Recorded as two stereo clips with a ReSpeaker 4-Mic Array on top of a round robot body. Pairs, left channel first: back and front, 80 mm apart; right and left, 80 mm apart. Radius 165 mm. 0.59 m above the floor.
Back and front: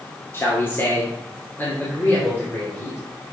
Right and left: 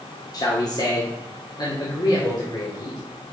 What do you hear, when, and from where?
0.3 s a man speaking: 120° right, 2.5 m; by 3.0 s 115° right, 4 m